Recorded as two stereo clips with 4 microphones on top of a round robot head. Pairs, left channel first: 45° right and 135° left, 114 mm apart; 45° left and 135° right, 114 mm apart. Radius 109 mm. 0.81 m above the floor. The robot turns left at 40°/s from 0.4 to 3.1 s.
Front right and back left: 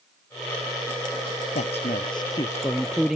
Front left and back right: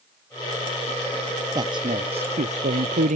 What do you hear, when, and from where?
1.6 s a man speaking: 75° right; by 3.2 s 140° right